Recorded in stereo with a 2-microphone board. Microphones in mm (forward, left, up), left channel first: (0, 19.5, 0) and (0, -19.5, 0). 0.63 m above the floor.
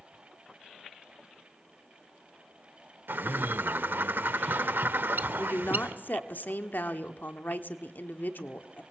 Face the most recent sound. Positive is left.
turn(degrees=60)  # may be behind; listen again after turning